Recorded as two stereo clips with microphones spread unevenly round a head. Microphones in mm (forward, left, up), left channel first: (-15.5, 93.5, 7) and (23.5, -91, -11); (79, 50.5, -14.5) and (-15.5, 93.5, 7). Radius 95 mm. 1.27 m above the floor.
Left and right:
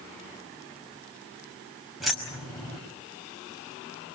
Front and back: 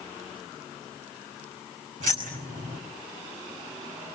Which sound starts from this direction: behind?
Keys jangling, at 2.0 s.